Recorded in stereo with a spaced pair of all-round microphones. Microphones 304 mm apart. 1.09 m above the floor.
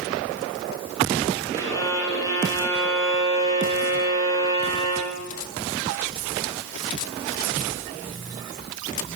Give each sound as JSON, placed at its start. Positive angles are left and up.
{"t": 1.5, "sound": "a violin", "side_deg": 10, "distance_m": 4.5}